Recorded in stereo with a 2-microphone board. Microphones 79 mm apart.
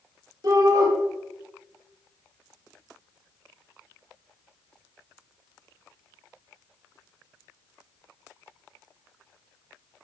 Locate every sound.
0.4 s a shout: 65° right (ahead or behind), 6.5 m